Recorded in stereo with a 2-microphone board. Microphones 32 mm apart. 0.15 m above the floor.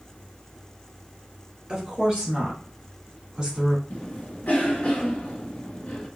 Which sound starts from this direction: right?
A woman speaking, at 1.7 s.